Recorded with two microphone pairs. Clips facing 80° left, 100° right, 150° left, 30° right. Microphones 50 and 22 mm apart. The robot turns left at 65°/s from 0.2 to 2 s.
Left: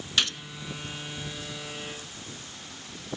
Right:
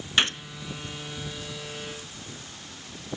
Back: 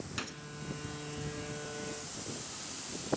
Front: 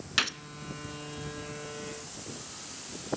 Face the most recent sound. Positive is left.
turn(degrees=-160)